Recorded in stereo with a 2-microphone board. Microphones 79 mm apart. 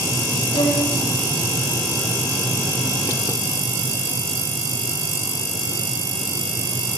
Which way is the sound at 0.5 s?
90° left.